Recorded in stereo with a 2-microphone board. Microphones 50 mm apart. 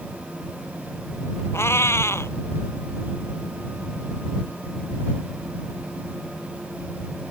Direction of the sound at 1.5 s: 65° left (ahead or behind).